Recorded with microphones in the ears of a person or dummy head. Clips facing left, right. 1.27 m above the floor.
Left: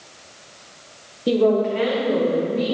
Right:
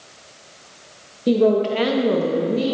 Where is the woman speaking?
Centre (ahead or behind), 0.7 m; by 2.8 s 65° right (ahead or behind), 1.6 m.